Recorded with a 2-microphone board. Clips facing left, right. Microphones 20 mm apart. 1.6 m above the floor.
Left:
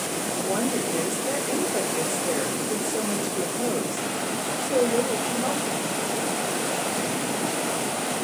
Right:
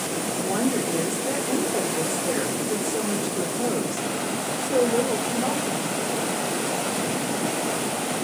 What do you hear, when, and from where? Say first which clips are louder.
0.4 s a woman speaking: right 2 dB; 20° right (ahead or behind), 1.2 m